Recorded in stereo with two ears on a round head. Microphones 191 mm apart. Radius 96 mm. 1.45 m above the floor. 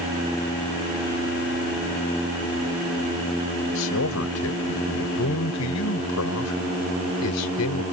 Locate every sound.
3.7 s a man speaking: 75° left (ahead or behind); by 7.8 s 80° left